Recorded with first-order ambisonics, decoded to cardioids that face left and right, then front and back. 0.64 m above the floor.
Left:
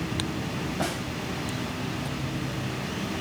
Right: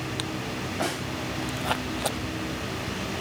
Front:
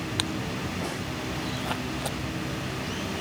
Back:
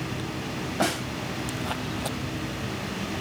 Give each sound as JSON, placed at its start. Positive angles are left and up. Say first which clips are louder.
{"t": 0.8, "sound": "a snare drum", "louder": "right 2 dB, back 7 dB", "azimuth_deg": -175, "distance_m": 2.0}